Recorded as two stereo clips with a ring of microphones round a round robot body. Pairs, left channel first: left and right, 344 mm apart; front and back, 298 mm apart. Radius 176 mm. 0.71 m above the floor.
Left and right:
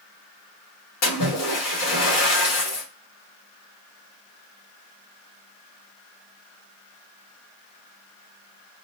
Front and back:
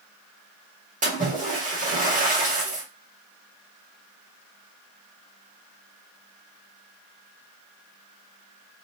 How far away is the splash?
About 1.5 m.